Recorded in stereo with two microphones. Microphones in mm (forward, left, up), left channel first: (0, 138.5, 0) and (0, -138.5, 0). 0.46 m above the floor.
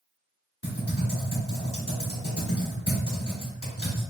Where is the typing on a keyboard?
55° left (ahead or behind), 1.6 m.